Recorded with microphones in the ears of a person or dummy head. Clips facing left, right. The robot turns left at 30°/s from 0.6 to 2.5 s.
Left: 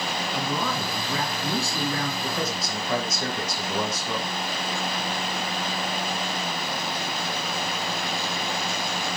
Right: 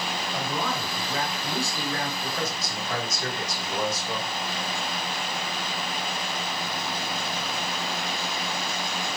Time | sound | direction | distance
0.3 | a man speaking | 140° left | 3 m
2.2 | a man speaking | 75° left (ahead or behind) | 1.3 m